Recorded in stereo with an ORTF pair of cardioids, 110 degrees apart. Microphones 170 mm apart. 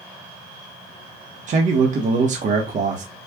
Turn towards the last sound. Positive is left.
turn(degrees=-45)